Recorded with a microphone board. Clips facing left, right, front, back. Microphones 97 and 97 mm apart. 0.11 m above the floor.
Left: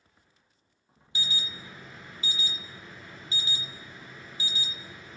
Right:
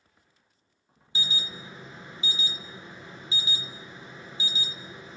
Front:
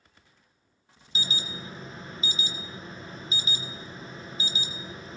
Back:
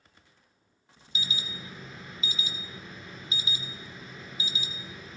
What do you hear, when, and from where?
1.1 s an alarm: 35° right, 1.7 m